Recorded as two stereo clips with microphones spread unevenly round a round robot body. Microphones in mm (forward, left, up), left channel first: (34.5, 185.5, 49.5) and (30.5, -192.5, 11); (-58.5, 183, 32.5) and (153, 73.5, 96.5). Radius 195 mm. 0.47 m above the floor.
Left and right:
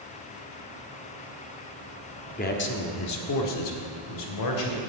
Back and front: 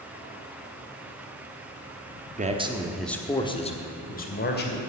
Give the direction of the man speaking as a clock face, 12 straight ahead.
11 o'clock.